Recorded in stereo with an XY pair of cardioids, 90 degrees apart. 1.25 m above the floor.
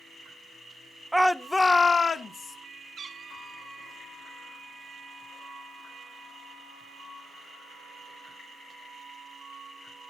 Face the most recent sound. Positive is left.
turn(degrees=-50)